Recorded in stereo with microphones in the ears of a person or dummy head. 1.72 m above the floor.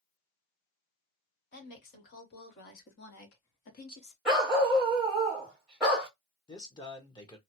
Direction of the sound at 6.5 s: 25° left (ahead or behind).